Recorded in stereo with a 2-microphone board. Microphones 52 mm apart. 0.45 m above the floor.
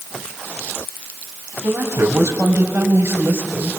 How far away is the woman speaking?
About 4 m.